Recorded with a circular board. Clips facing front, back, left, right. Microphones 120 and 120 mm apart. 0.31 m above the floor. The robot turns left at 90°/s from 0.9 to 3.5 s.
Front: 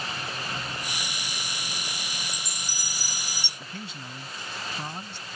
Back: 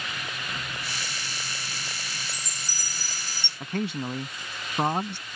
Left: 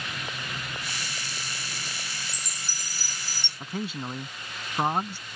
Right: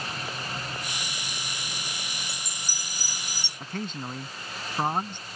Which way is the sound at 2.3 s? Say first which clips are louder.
Front 1 dB, right 1 dB; 95° right.